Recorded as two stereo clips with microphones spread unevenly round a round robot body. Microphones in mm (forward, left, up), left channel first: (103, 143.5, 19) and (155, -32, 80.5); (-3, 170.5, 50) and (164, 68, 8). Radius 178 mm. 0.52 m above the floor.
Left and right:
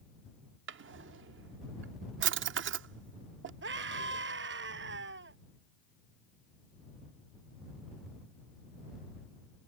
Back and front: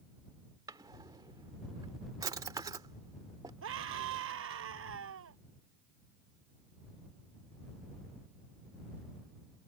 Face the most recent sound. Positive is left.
turn(degrees=-65)